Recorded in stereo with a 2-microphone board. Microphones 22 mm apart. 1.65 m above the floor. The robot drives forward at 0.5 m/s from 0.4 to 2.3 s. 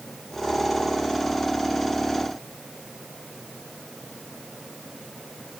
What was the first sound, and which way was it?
Only background noise.